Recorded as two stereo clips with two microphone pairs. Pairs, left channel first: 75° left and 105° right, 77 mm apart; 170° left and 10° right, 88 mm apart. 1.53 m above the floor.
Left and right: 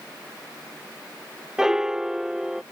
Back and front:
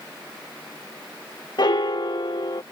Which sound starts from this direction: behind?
A piano, at 1.6 s.